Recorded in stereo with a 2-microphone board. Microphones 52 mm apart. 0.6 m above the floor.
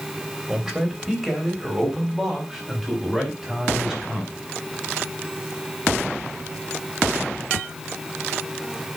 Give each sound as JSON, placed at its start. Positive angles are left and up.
{"t": 0.5, "sound": "a man speaking", "side_deg": -10, "distance_m": 3.0}